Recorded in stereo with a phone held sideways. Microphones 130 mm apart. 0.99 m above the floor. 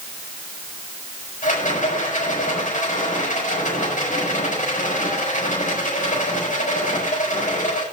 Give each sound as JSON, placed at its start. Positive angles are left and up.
{"t": 1.4, "sound": "a rattle", "side_deg": 80, "distance_m": 6.0}